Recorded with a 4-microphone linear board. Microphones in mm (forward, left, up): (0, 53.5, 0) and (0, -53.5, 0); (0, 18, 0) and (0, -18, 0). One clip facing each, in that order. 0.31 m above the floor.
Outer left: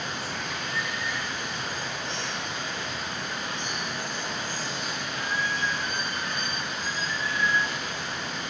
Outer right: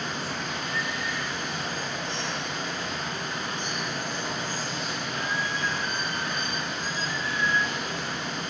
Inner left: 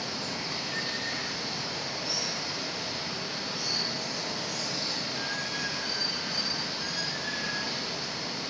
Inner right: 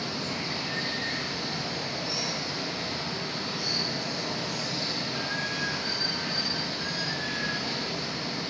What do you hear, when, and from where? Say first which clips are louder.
0.0 s running water: outer right 1 dB, inner right 2 dB; 50° right (ahead or behind), 3.5 m